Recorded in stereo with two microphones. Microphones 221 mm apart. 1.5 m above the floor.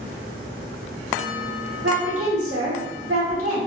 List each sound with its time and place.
1.8 s a woman speaking: 85° right, 1.4 m